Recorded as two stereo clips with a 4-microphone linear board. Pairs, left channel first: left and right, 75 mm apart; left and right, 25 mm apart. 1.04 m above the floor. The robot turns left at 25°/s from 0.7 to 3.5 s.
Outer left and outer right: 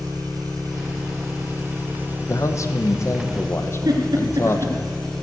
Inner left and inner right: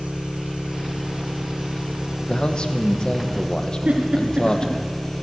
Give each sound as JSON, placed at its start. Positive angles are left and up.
{"t": 0.0, "sound": "an engine running", "azimuth_deg": -115, "distance_m": 2.0}
{"t": 2.3, "sound": "a man speaking", "azimuth_deg": 90, "distance_m": 1.0}
{"t": 3.9, "sound": "a giggle", "side_deg": -55, "distance_m": 2.5}